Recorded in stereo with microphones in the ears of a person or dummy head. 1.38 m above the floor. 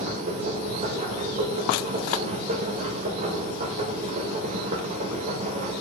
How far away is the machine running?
About 1.1 m.